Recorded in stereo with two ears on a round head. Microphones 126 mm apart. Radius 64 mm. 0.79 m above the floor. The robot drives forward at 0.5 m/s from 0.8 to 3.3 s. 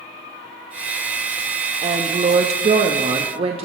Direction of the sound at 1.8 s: 40° right (ahead or behind).